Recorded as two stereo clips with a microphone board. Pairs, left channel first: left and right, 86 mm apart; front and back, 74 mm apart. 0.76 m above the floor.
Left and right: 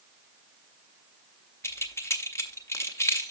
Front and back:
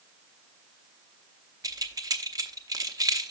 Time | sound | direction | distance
1.6 | keys jangling | 145° left | 0.7 m